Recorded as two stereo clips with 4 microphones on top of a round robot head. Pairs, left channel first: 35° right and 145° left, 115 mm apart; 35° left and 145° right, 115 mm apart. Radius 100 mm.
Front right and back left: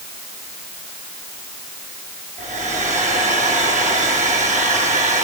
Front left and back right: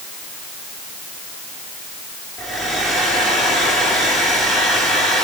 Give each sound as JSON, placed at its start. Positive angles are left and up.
{"t": 2.4, "sound": "a hair dryer", "azimuth_deg": 125, "distance_m": 8.5}